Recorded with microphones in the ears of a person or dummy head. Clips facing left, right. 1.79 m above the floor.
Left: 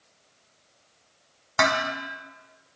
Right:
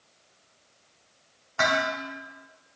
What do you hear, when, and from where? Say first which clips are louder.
1.6 s dishes clattering: left 1 dB; 75° left (ahead or behind), 3 m